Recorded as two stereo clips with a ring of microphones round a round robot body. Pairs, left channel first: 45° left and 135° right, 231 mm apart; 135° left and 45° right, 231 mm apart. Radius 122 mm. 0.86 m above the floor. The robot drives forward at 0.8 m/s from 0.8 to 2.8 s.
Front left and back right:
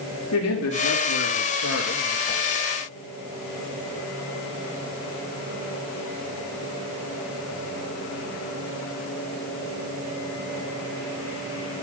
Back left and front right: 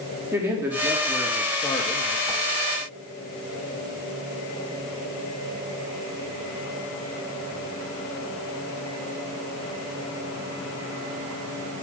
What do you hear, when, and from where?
0.3 s a man speaking: 35° left, 1.7 m; by 2.2 s 75° left, 1.1 m
2.3 s a whoosh: 60° left, 0.7 m; by 2.4 s 80° left, 0.7 m